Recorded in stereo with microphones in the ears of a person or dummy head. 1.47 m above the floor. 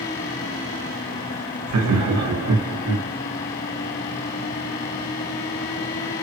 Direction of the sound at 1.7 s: 80° right.